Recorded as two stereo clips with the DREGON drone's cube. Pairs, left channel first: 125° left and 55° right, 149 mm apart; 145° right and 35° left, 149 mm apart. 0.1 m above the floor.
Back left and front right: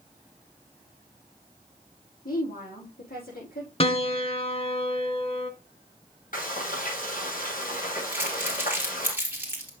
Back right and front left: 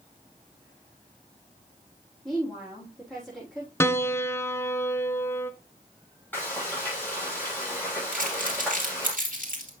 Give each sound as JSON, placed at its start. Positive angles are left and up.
{"t": 2.2, "sound": "a woman speaking", "azimuth_deg": 125, "distance_m": 7.0}
{"t": 3.8, "sound": "a piano", "azimuth_deg": 145, "distance_m": 0.7}
{"t": 6.3, "sound": "frying", "azimuth_deg": 135, "distance_m": 5.5}
{"t": 8.1, "sound": "crumpling", "azimuth_deg": 20, "distance_m": 3.0}